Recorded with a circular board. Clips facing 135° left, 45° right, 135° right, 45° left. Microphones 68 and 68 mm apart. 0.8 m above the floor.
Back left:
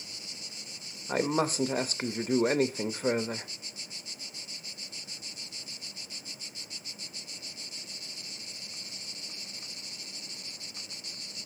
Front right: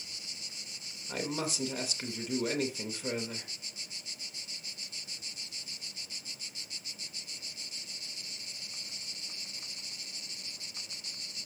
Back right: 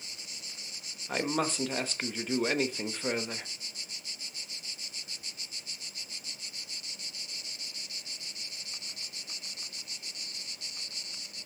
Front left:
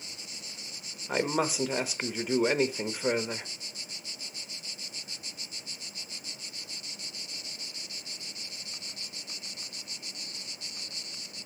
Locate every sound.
1.1 s a man speaking: 120° left, 0.7 m